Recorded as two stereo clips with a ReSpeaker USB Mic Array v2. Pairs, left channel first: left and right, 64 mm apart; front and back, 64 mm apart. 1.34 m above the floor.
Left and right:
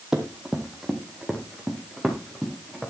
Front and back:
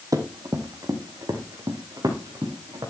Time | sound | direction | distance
0.1 | running footsteps | 165° right | 2.5 m